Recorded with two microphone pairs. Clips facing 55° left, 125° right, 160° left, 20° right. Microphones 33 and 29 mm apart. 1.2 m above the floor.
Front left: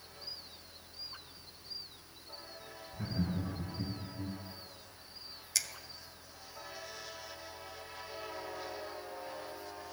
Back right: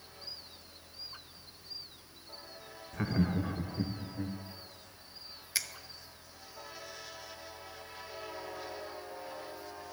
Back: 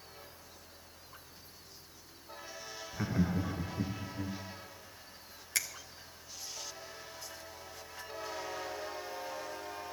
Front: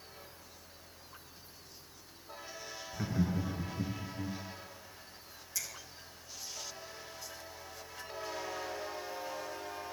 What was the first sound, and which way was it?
Laughter, 125° right.